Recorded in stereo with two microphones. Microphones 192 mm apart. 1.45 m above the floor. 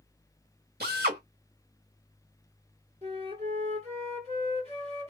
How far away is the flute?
About 1.6 m.